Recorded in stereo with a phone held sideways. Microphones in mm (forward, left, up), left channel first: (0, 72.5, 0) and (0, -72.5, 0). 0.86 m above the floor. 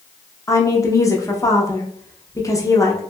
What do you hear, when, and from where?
0.5 s a woman speaking: 20° left (ahead or behind), 0.6 m